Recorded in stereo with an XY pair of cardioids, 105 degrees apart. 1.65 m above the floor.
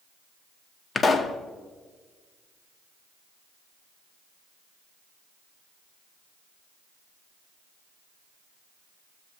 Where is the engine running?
I don't hear an engine running.